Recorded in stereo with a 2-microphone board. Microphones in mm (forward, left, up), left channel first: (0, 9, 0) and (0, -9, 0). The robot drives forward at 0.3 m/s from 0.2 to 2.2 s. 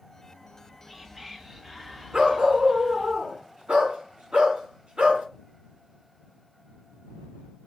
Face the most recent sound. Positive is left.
turn(degrees=-75)  # may be behind; listen again after turning